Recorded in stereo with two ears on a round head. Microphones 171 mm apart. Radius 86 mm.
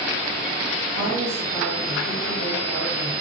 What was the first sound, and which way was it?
A woman speaking, 60° right (ahead or behind).